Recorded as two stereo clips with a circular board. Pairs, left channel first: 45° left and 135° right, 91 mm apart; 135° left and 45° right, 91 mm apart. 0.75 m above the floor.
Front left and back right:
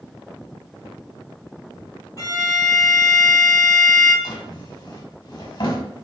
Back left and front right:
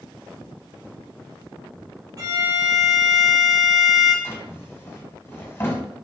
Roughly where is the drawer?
Left.